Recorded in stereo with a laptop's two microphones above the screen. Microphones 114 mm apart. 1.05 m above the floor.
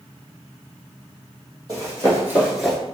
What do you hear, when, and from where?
1.7 s running footsteps: 30° right (ahead or behind), 1.9 m; by 2.8 s 10° left (ahead or behind), 1.0 m